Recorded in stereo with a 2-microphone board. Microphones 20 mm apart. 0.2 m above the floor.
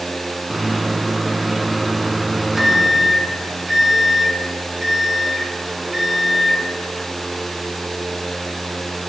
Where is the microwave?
10° right (ahead or behind), 1.9 m.